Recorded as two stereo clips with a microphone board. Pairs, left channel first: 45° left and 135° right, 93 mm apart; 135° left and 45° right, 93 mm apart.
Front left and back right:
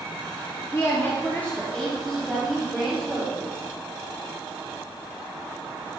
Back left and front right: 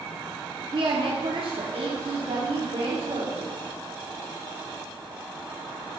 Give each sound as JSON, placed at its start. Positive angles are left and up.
{"t": 0.7, "sound": "a woman speaking", "azimuth_deg": -15, "distance_m": 2.5}